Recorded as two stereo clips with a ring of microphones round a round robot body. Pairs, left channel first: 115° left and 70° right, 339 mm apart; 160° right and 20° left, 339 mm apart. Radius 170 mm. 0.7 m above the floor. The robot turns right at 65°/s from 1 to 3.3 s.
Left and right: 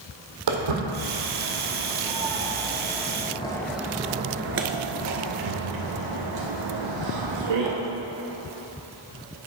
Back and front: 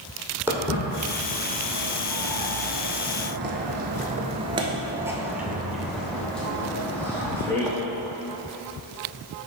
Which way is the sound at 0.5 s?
60° right.